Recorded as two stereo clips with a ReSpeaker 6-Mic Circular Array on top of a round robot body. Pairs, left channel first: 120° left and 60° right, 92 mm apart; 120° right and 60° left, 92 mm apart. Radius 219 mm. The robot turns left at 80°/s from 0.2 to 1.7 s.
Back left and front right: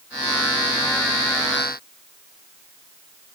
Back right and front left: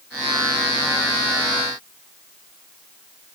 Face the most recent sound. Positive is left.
No sound to turn to.